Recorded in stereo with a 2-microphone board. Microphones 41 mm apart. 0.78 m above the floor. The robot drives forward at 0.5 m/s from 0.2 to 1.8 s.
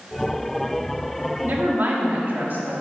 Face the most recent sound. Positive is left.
turn(degrees=-50)  # may be behind; listen again after turning